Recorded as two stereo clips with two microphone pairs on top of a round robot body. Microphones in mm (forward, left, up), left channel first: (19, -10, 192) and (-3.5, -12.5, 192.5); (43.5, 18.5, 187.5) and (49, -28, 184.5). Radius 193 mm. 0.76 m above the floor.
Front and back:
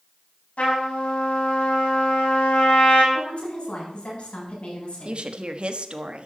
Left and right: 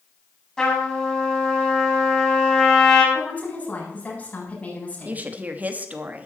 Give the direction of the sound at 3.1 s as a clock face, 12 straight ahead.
11 o'clock.